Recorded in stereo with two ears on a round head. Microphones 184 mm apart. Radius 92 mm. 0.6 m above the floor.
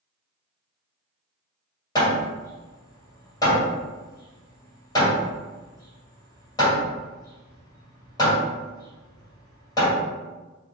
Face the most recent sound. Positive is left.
turn(degrees=20)  # may be behind; listen again after turning